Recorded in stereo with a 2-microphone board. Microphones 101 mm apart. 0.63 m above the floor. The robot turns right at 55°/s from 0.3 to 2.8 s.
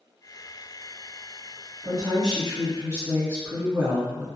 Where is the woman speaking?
90° right, 1.1 m; by 4.3 s 35° right, 1.1 m.